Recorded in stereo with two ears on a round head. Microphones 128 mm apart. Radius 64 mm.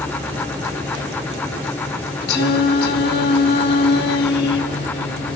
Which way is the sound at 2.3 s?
80° left.